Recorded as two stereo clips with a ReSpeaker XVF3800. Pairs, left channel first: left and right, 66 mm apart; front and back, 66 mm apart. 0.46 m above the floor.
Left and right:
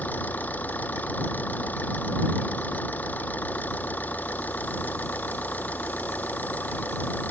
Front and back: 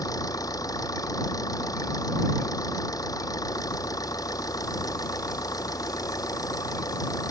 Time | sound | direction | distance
0.0 | an engine running | 25° left | ?